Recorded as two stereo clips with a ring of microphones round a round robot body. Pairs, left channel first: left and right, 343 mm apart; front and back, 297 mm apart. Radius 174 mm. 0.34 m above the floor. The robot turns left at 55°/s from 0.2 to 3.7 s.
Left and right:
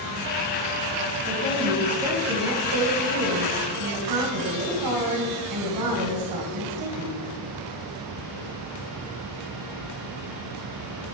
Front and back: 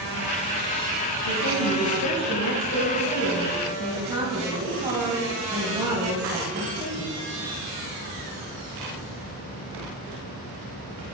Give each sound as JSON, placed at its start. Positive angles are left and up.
{"t": 1.2, "sound": "a woman speaking", "azimuth_deg": 30, "distance_m": 2.5}